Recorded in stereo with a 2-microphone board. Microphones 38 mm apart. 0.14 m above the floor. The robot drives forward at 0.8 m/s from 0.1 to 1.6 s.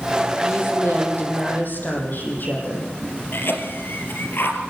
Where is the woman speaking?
65° left (ahead or behind), 6 m; by 2.9 s 55° left (ahead or behind), 6.5 m.